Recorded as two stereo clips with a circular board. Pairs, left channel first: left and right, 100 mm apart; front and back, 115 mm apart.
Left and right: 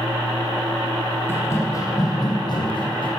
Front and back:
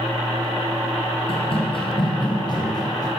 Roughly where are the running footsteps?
Ahead left.